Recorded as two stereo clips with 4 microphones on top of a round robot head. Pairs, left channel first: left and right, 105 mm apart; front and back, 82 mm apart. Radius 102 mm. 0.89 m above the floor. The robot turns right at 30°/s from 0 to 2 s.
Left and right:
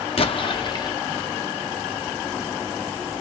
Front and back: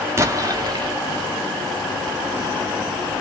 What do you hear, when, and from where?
0.2 s an explosion: 120° left, 1.1 m; by 1.0 s 145° left, 1.1 m